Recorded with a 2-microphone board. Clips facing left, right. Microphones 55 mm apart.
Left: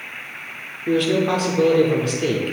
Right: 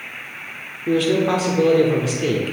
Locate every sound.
0.9 s a man speaking: 5° right (ahead or behind), 0.8 m